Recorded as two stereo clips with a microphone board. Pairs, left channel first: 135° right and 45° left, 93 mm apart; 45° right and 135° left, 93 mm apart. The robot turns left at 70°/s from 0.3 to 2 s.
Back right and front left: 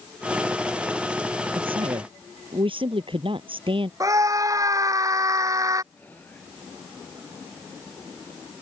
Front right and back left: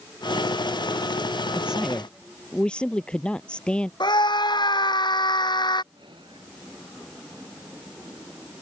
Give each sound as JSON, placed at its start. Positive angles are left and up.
{"t": 1.6, "sound": "a man speaking", "azimuth_deg": 65}
{"t": 4.0, "sound": "a scream", "azimuth_deg": -5}
{"t": 5.9, "sound": "whispering", "azimuth_deg": 155}